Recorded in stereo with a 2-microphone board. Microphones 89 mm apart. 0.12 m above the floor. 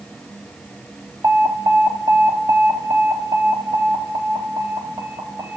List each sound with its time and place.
1.2 s an alarm: 40° right (ahead or behind), 1.3 m